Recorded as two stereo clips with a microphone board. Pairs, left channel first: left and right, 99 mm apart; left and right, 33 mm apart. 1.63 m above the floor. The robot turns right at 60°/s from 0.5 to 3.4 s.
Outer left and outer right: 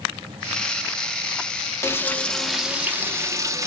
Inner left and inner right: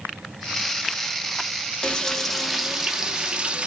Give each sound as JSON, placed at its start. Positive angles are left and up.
{"t": 1.8, "sound": "frying", "azimuth_deg": 140, "distance_m": 0.5}